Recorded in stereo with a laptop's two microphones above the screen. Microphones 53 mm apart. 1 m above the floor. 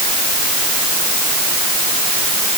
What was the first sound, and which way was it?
Only background noise.